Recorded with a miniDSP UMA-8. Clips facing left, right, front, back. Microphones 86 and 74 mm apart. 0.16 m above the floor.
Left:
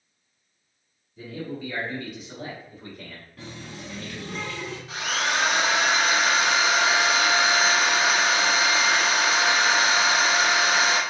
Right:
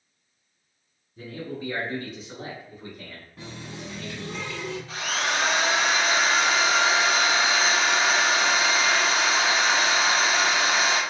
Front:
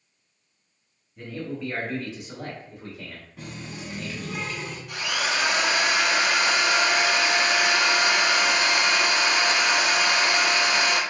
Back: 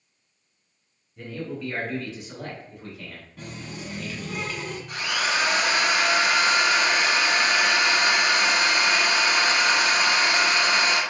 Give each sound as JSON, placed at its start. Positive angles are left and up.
{"t": 1.2, "sound": "a man speaking", "azimuth_deg": -90, "distance_m": 1.5}
{"t": 3.4, "sound": "a running tap", "azimuth_deg": -70, "distance_m": 1.0}
{"t": 4.9, "sound": "a drill", "azimuth_deg": 155, "distance_m": 1.4}